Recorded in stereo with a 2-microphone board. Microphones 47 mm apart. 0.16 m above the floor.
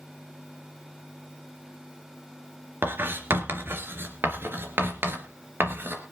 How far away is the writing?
About 3 m.